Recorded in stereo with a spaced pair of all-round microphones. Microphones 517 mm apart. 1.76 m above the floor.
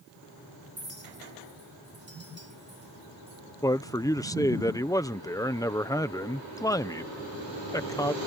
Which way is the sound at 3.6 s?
5° left (ahead or behind).